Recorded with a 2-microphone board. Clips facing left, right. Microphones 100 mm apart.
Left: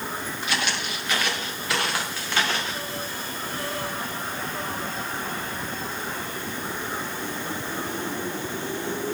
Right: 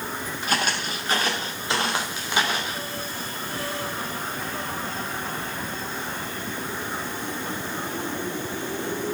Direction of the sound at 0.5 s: 45° right (ahead or behind).